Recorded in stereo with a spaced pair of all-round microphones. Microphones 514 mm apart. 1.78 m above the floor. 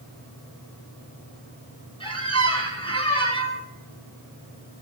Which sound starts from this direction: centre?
A squeak, at 2.0 s.